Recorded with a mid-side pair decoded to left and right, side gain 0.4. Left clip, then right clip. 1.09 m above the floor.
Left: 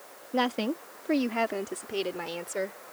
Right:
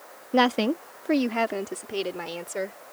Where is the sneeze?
I don't hear a sneeze.